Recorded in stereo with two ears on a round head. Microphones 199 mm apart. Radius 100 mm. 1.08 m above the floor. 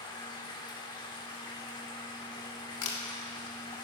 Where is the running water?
20° left (ahead or behind), 1.5 m.